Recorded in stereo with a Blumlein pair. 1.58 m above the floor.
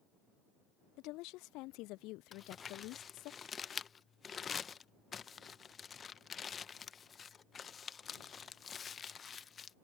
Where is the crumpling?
20° left.